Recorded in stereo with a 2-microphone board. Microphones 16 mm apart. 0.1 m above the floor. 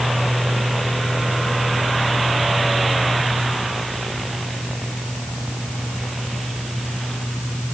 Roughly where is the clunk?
I don't hear a clunk.